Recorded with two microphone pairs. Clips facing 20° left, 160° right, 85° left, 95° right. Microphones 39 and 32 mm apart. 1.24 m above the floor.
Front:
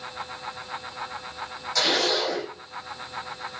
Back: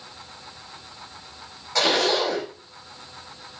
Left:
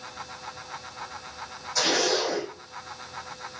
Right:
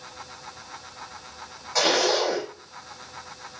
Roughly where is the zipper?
Behind right.